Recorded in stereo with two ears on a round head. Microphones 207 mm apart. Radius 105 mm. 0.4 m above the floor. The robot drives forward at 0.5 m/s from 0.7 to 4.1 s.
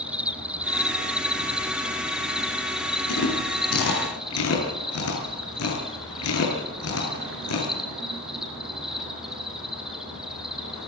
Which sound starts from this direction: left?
Chewing, at 3.1 s.